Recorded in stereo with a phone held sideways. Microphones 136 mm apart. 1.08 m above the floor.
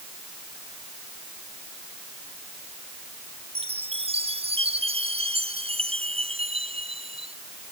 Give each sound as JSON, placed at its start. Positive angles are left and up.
{"t": 3.5, "sound": "a chime", "side_deg": -45}